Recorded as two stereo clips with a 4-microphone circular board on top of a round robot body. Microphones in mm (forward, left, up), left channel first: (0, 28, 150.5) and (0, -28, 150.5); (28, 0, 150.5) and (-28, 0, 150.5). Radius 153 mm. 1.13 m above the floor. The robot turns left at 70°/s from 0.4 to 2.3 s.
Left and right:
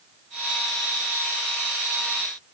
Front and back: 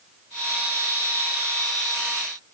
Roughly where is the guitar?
I don't hear a guitar.